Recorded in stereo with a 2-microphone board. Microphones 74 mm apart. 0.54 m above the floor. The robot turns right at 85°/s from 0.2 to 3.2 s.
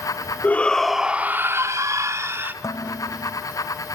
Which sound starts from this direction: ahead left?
Dishes clattering, at 2.6 s.